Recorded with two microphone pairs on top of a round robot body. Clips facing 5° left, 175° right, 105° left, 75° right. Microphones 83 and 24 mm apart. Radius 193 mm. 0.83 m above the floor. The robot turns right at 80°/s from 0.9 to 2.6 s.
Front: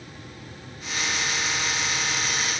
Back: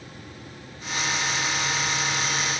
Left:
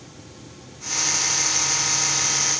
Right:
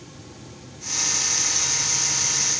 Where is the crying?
No crying in this recording.